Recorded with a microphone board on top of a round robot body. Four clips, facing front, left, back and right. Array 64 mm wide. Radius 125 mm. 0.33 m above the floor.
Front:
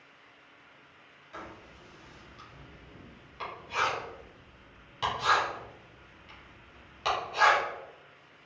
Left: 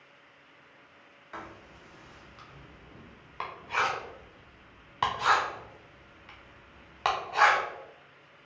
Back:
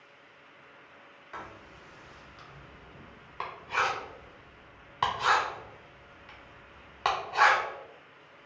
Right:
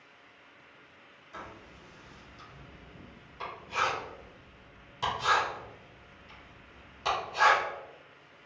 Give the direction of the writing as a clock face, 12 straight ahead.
8 o'clock.